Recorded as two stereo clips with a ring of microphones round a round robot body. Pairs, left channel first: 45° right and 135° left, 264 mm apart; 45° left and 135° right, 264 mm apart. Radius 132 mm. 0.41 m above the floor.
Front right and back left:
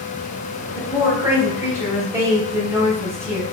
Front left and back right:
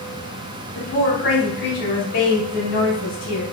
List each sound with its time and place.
0.8 s a woman speaking: 60° left, 2 m